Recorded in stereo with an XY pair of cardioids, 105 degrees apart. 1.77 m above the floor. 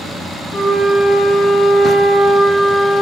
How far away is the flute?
About 2 m.